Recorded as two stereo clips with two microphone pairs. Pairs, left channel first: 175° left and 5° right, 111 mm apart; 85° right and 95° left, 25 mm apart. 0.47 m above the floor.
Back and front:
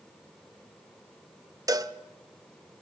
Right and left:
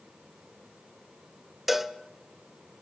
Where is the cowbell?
20° left, 1.2 m.